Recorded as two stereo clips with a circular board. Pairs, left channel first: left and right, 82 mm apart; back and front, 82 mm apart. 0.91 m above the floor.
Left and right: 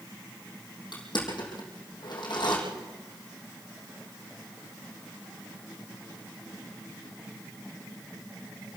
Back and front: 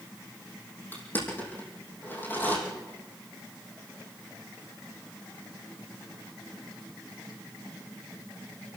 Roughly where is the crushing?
Behind left.